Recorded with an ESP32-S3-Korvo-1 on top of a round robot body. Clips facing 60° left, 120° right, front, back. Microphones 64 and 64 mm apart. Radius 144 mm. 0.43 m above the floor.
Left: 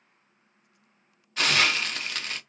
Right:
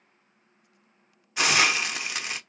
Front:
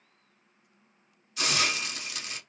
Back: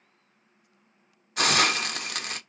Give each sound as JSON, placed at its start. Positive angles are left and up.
{"t": 1.4, "sound": "a hiss", "azimuth_deg": 165, "distance_m": 0.6}